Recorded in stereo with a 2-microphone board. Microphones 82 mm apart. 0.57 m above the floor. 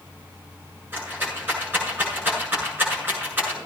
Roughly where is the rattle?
Right.